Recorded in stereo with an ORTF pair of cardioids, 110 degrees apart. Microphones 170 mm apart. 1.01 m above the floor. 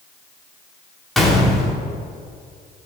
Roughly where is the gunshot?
Ahead.